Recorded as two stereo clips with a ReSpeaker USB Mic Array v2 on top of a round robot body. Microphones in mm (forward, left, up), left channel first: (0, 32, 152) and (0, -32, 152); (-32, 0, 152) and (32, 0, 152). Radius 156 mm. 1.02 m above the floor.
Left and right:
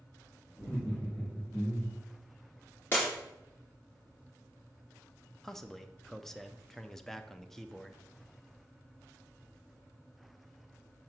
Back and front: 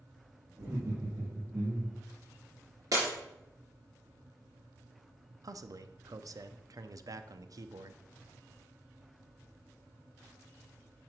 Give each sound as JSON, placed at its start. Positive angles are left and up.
{"t": 0.6, "sound": "laughter", "azimuth_deg": 40, "distance_m": 2.0}
{"t": 2.9, "sound": "breaking glass", "azimuth_deg": 30, "distance_m": 3.0}
{"t": 5.4, "sound": "a man speaking", "azimuth_deg": 5, "distance_m": 0.6}